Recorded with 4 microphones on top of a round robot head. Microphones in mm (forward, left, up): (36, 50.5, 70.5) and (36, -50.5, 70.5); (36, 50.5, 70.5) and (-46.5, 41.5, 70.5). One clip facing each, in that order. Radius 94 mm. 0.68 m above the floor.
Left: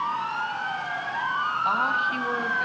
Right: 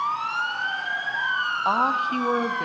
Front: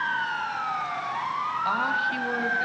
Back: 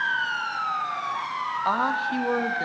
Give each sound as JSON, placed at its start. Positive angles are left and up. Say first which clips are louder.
{"t": 1.6, "sound": "a woman speaking", "louder": "right 5 dB, back 3 dB", "azimuth_deg": -125, "distance_m": 0.9}